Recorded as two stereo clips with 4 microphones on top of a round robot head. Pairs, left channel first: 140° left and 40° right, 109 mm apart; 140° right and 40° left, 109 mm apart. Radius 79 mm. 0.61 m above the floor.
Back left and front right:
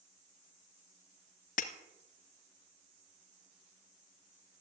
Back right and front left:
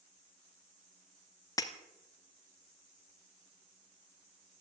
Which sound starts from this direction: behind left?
Breaking glass, at 1.6 s.